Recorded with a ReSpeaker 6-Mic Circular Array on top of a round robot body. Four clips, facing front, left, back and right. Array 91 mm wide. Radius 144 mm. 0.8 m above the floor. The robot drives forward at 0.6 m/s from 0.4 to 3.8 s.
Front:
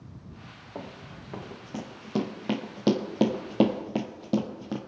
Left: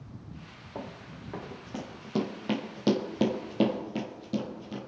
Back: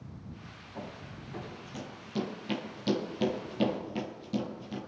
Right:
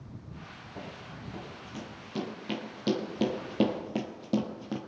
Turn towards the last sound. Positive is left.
turn(degrees=-35)